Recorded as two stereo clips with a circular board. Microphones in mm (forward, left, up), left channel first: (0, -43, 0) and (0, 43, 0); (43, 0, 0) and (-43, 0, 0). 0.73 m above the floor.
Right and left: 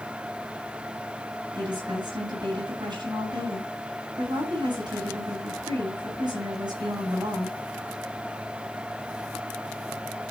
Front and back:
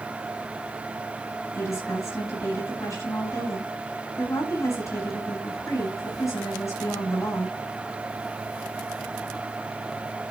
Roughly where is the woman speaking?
Ahead left.